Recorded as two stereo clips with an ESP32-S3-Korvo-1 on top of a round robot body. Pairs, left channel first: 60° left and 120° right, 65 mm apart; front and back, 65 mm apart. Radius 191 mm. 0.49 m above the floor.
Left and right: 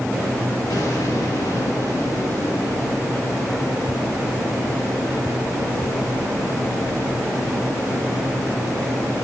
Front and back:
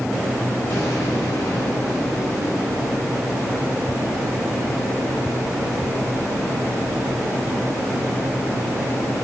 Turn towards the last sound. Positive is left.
turn(degrees=45)